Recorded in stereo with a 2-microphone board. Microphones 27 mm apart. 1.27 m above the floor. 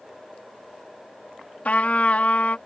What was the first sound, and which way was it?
A trumpet, 65° left (ahead or behind).